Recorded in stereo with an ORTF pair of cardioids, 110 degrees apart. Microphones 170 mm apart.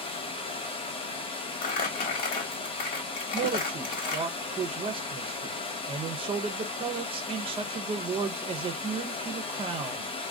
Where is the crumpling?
60° left, 1.2 m.